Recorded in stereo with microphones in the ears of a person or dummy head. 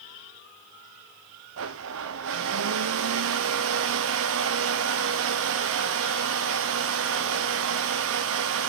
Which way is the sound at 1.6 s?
70° right (ahead or behind).